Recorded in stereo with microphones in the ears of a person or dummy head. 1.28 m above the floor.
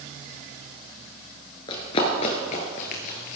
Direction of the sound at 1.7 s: 20° left (ahead or behind).